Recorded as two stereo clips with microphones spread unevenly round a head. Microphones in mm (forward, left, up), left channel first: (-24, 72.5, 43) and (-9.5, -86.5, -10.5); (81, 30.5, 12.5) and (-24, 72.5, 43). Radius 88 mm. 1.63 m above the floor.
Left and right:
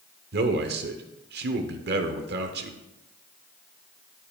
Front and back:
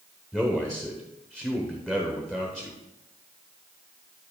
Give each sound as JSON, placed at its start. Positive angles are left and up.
{"t": 0.3, "sound": "a man speaking", "azimuth_deg": -110, "distance_m": 0.8}